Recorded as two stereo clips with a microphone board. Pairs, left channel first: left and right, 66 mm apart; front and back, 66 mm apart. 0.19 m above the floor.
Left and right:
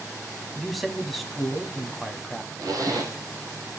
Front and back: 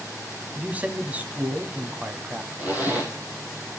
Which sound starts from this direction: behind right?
A zipper, at 2.6 s.